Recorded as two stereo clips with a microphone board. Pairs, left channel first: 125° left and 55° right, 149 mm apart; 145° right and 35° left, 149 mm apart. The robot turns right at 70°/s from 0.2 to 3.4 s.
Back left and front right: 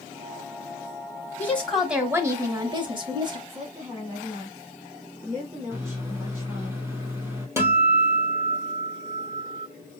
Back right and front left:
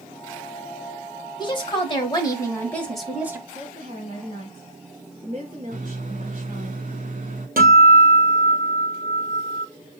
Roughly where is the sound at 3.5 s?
Ahead.